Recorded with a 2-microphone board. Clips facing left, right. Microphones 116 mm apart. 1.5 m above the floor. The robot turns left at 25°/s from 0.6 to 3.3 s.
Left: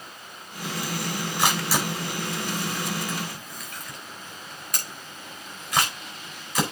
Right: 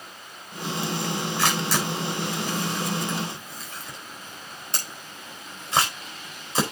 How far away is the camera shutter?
About 4.5 m.